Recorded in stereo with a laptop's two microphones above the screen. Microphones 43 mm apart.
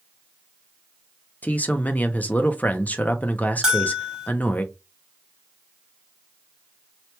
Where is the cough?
No cough in this recording.